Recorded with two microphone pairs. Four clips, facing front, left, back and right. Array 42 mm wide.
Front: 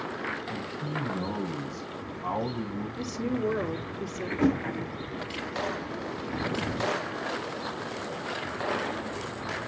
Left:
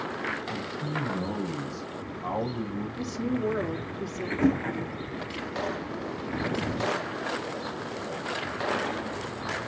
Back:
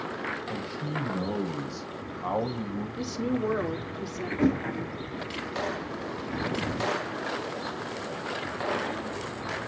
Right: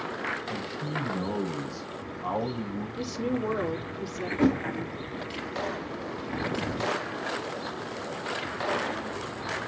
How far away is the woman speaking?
About 5 m.